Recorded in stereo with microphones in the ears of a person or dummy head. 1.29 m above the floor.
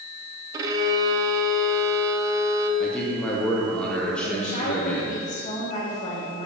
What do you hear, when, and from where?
0.5 s a violin: 25° right (ahead or behind), 0.5 m
2.8 s a man speaking: 5° left (ahead or behind), 0.7 m
4.2 s a woman speaking: 40° left (ahead or behind), 1.4 m